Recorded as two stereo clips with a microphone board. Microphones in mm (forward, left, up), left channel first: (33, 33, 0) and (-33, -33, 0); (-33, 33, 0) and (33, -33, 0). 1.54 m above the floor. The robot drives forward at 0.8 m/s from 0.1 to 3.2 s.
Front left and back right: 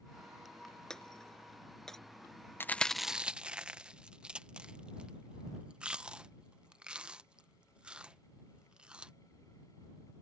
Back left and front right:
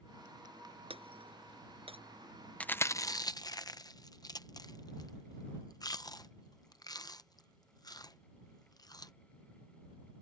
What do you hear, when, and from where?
0.9 s breaking glass: 40° right
2.6 s chewing: 75° left; by 9.1 s 150° left